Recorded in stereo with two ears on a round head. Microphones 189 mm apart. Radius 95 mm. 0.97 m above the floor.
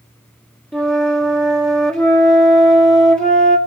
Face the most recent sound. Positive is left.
turn(degrees=5)  # may be behind; listen again after turning